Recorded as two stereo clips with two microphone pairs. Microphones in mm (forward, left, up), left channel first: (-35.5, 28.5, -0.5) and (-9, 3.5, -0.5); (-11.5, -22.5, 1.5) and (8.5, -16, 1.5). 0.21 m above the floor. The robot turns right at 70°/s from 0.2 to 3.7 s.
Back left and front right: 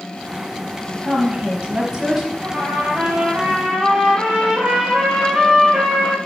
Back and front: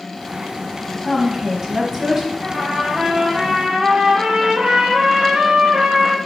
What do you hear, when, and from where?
1.0 s a woman speaking: 55° right, 1.3 m; by 2.3 s 30° left, 1.3 m
2.4 s a trumpet: 65° right, 2.5 m; by 6.2 s 25° left, 2.5 m